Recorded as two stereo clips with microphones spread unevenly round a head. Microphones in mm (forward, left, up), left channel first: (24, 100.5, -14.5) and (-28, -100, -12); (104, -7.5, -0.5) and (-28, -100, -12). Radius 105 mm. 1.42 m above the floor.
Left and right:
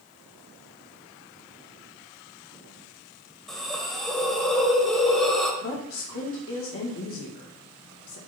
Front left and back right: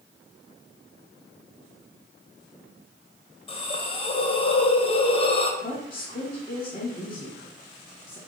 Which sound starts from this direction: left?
A woman speaking, at 5.6 s.